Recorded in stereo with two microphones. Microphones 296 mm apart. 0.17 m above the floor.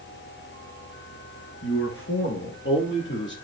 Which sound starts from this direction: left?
A man speaking, at 1.6 s.